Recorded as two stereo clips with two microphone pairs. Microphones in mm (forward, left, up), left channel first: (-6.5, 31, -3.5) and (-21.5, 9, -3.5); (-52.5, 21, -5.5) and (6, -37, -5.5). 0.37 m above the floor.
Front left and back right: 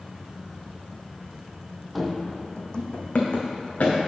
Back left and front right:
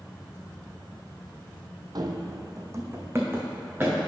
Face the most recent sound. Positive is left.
turn(degrees=25)